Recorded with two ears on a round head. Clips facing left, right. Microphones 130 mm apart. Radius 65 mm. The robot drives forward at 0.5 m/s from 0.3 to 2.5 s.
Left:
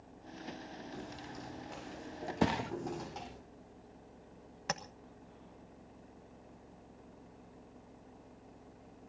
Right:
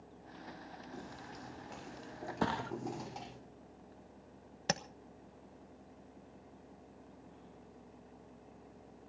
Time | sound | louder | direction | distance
0.9 | footsteps | left 2 dB | centre (ahead or behind) | 6 m
2.4 | a thud | left 3 dB | 20° left (ahead or behind) | 0.8 m
4.7 | tapping | right 2 dB | 35° right (ahead or behind) | 1.1 m